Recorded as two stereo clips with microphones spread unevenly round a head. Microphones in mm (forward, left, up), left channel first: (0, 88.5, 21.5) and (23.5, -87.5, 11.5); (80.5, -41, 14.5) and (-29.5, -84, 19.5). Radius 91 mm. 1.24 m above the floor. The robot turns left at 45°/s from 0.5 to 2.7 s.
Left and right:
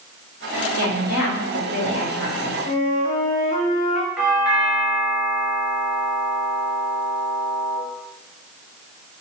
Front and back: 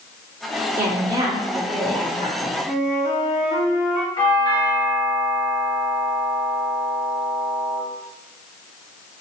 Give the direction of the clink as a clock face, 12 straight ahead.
I don't hear a clink.